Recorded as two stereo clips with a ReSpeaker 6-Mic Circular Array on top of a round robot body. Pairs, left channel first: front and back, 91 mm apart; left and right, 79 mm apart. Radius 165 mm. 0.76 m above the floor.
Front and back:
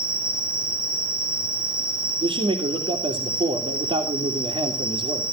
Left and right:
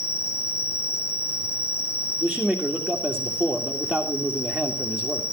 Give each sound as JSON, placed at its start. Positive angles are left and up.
{"t": 0.0, "sound": "an insect", "azimuth_deg": 150, "distance_m": 5.5}
{"t": 2.2, "sound": "a man speaking", "azimuth_deg": 175, "distance_m": 2.5}